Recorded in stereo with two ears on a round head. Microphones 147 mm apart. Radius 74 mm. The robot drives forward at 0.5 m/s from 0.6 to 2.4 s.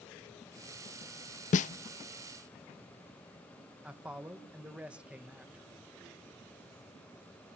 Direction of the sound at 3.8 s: 5° right (ahead or behind).